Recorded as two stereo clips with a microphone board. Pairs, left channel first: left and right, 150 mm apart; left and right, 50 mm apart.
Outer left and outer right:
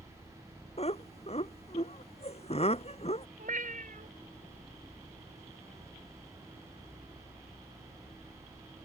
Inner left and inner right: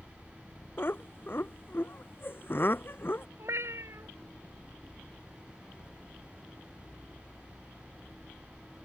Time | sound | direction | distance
0.8 | laughter | 40° left (ahead or behind) | ?
3.4 | a cat meowing | 60° right (ahead or behind) | ?